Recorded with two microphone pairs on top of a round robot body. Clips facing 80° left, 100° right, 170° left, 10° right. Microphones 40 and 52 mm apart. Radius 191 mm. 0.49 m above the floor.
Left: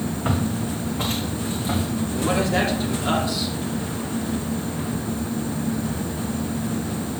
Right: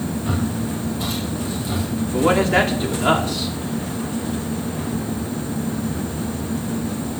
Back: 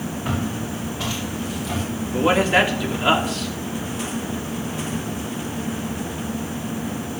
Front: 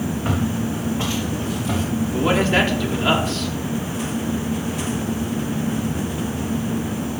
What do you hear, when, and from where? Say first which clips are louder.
0.2 s footsteps: left 1 dB, front 2 dB; 55° left, 5 m; by 1.8 s 45° left, 7 m
2.1 s a man speaking: right 6 dB, back 2 dB; 115° right, 3 m